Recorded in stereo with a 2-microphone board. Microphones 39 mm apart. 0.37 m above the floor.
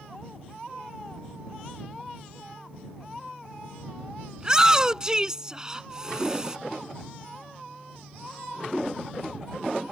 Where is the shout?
20° right (ahead or behind).